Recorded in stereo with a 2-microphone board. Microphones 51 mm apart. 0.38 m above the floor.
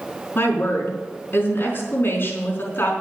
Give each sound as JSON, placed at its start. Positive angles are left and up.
{"t": 0.3, "sound": "a woman speaking", "side_deg": 50, "distance_m": 4.5}